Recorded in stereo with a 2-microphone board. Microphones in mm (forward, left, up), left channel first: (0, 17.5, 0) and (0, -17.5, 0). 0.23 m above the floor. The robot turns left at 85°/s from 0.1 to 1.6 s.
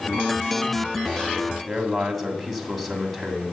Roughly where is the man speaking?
Centre.